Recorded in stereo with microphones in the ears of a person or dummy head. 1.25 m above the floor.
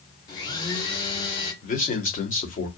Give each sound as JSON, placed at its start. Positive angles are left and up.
{"t": 0.3, "sound": "a blender", "side_deg": 25, "distance_m": 1.0}
{"t": 1.6, "sound": "a man speaking", "side_deg": 45, "distance_m": 1.0}